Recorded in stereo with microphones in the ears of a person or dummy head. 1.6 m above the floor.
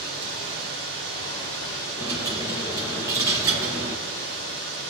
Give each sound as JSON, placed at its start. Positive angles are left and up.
{"t": 0.0, "sound": "running water", "side_deg": -70, "distance_m": 5.0}
{"t": 2.0, "sound": "a dropped coin", "side_deg": -25, "distance_m": 2.0}